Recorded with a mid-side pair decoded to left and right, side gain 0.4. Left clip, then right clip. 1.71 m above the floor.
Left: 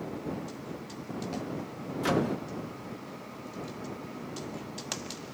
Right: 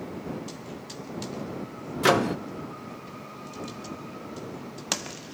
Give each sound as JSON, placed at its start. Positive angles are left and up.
{"t": 2.0, "sound": "a microwave", "azimuth_deg": -70}